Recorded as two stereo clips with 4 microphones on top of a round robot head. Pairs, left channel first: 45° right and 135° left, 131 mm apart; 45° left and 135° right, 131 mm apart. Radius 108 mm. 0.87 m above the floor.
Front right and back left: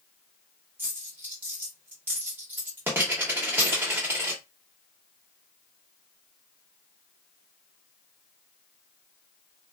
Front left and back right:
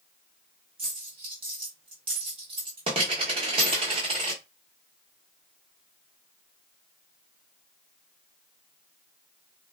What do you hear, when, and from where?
0.8 s a dropped coin: 160° right, 0.6 m